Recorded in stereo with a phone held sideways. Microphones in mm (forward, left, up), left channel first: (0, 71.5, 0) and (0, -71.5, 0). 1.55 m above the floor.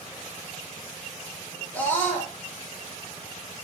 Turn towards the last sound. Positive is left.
turn(degrees=15)  # may be behind; listen again after turning